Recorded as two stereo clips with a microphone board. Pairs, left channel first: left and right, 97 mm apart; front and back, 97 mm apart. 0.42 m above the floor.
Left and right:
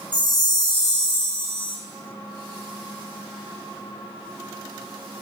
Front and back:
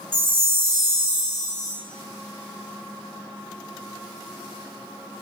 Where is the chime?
120° left, 0.6 m.